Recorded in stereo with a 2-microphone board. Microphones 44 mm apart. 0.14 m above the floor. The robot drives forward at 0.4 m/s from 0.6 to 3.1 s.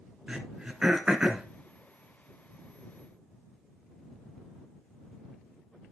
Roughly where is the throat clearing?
Centre.